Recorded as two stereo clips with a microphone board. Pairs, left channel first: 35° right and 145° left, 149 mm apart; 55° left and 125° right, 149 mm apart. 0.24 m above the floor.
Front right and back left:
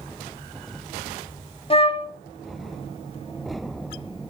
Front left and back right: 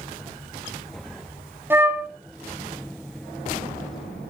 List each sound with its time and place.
1.7 s a flute: 55° right, 0.7 m